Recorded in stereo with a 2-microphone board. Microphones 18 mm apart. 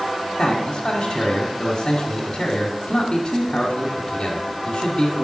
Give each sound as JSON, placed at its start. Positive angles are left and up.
{"t": 0.4, "sound": "a man speaking", "side_deg": 35, "distance_m": 1.4}